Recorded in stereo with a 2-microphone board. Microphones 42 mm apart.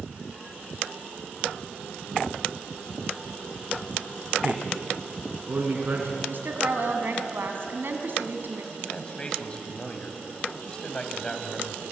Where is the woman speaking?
55° right (ahead or behind), 3.5 m.